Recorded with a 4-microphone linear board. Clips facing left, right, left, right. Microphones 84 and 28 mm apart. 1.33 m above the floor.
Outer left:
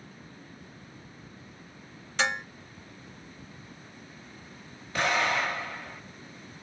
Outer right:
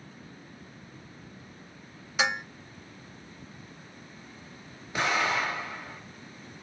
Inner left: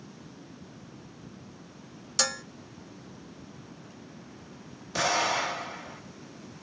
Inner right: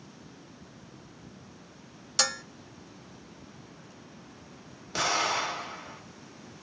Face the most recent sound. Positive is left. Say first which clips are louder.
# outer left 1 dB, inner left 1 dB
turn(degrees=-20)  # may be behind; listen again after turning